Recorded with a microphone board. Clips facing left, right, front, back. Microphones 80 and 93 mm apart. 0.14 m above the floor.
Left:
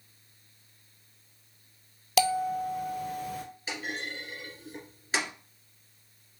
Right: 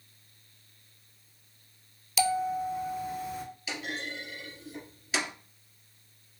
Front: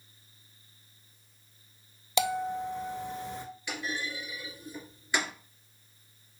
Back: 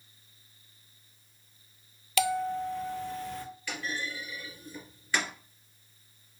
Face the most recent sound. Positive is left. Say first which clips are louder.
# left 1 dB, front 1 dB
turn(degrees=70)